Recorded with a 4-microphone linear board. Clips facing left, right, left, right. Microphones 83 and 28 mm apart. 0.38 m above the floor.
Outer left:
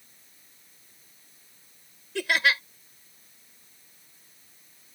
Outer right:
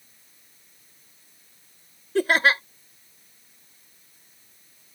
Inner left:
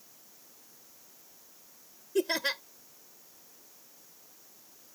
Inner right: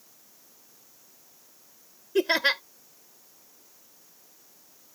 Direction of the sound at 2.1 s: 40° right (ahead or behind).